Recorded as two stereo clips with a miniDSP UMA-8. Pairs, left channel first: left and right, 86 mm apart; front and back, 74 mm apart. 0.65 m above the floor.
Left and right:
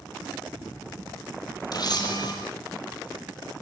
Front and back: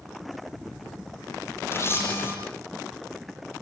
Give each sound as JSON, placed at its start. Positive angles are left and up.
{"t": 1.7, "sound": "a camera shutter", "azimuth_deg": 55, "distance_m": 10.0}